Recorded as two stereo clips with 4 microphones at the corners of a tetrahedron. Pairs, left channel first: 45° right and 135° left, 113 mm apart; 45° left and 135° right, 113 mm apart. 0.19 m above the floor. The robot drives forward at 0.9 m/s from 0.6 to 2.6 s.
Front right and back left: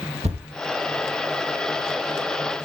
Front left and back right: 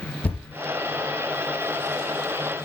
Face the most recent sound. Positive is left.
turn(degrees=150)